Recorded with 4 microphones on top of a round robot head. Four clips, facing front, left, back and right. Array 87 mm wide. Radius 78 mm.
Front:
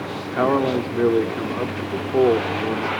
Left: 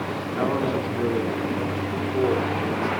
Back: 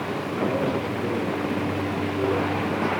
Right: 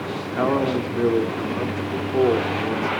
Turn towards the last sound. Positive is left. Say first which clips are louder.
# right 4 dB, front 7 dB
turn(degrees=-20)